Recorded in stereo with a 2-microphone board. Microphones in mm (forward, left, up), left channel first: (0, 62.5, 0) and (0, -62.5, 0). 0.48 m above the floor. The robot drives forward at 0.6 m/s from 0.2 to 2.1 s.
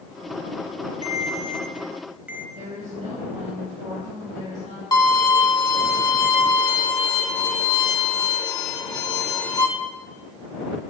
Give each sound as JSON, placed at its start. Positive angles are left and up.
{"t": 1.0, "sound": "a ringtone", "side_deg": -35, "distance_m": 0.5}
{"t": 2.5, "sound": "a woman speaking", "side_deg": -70, "distance_m": 3.0}
{"t": 4.9, "sound": "a violin", "side_deg": 30, "distance_m": 1.0}